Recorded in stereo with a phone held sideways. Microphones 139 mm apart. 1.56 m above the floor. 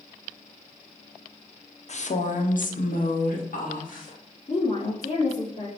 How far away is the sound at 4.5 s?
About 1.3 m.